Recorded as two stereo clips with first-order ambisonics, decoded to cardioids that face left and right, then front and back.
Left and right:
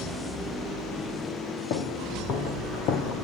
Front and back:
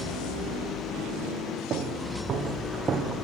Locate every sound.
1.7 s footsteps: 120° left, 3.5 m; by 3.2 s 115° left, 2.5 m